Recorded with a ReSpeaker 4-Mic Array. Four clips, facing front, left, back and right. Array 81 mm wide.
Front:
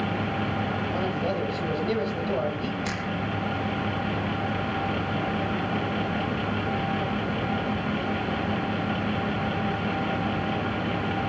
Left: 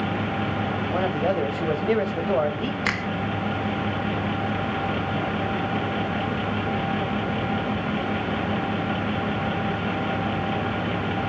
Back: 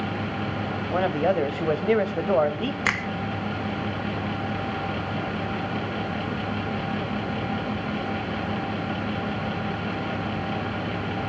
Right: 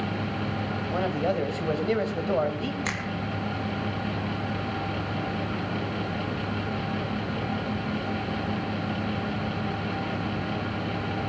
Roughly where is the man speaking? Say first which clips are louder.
Left 2 dB, back 9 dB; behind.